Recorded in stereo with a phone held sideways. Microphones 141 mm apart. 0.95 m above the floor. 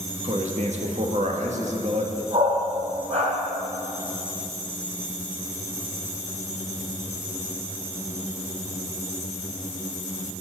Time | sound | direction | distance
0.2 | a man speaking | 60° right (ahead or behind) | 1.5 m
2.3 | a dog barking | 55° right (ahead or behind) | 3 m